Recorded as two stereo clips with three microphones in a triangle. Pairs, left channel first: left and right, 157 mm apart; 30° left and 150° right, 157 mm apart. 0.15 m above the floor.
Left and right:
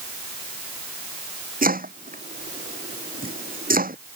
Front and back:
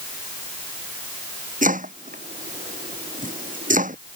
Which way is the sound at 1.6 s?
115° right.